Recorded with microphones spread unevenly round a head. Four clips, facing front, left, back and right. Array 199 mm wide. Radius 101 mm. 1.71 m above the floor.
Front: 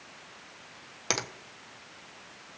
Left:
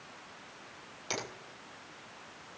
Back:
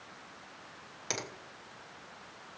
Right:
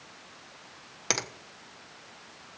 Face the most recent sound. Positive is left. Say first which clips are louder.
# right 5 dB, front 6 dB
turn(degrees=-50)